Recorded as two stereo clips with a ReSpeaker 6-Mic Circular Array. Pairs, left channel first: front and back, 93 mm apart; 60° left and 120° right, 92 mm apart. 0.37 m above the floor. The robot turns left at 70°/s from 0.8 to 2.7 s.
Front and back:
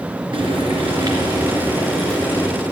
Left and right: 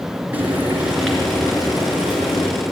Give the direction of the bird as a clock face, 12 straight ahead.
No bird in this recording.